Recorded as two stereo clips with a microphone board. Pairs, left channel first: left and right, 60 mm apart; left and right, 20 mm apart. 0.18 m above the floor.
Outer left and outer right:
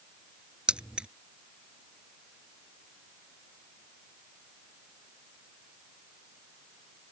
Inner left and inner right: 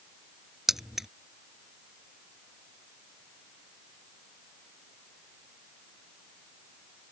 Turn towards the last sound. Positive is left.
turn(degrees=-15)  # may be behind; listen again after turning